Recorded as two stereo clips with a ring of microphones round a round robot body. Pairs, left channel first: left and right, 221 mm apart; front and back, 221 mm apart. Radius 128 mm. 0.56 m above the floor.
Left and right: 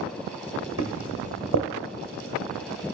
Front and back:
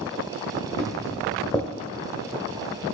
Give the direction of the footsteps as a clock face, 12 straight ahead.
3 o'clock.